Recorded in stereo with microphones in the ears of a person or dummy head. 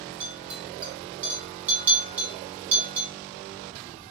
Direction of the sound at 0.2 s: 10° right (ahead or behind).